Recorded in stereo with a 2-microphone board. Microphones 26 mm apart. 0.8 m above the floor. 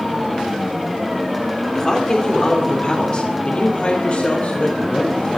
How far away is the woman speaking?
About 2.5 m.